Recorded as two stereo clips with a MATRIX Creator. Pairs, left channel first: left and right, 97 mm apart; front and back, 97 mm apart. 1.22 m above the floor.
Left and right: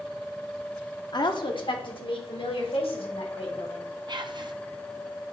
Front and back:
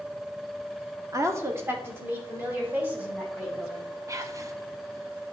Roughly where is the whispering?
Behind right.